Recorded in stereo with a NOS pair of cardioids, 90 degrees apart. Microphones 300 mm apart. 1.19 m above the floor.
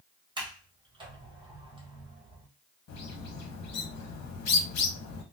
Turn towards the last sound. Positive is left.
turn(degrees=55)